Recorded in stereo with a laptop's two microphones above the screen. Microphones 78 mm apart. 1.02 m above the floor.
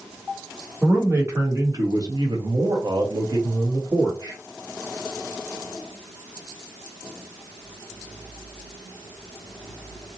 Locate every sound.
0.8 s a man speaking: 25° right (ahead or behind), 1.2 m; by 4.4 s 50° right (ahead or behind), 1.2 m